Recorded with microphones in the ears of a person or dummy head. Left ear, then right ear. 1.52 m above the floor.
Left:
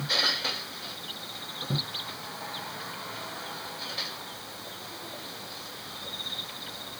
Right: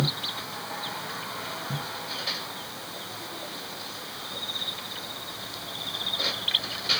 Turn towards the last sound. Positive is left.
No sound to turn to.